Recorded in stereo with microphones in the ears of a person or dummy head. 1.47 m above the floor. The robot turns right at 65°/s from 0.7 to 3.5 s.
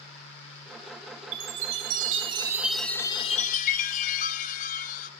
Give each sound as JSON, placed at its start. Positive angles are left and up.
{"t": 1.3, "sound": "a chime", "azimuth_deg": -95, "distance_m": 1.3}